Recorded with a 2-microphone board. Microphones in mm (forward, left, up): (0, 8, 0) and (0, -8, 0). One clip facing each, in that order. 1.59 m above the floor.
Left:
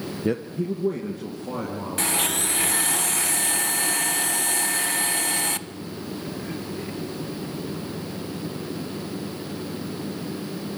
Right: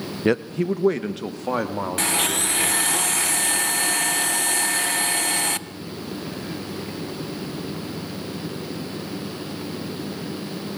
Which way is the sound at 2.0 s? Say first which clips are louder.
Right 1 dB; 10° right (ahead or behind).